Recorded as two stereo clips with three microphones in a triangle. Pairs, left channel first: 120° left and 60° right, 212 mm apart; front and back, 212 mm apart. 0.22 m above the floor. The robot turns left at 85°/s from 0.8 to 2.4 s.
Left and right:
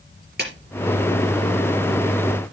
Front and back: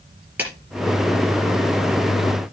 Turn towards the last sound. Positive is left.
turn(degrees=125)